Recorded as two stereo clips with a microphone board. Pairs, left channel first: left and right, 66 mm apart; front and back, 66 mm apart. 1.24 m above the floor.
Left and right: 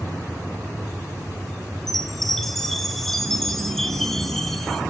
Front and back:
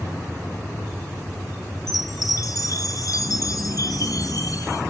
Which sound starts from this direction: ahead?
A chime, at 1.9 s.